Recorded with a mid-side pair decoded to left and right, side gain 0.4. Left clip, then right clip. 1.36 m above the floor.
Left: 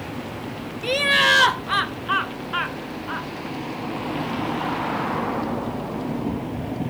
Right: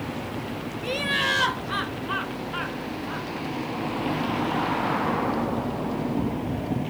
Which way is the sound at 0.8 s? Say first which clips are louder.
Left 7 dB; 55° left.